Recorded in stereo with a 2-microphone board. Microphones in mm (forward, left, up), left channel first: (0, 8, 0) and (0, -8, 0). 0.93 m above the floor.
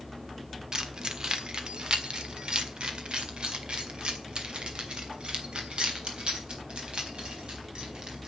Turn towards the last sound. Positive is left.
turn(degrees=-70)  # may be behind; listen again after turning